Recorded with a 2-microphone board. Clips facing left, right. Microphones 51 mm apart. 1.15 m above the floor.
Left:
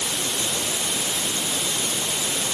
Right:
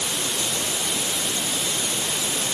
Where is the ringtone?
I don't hear a ringtone.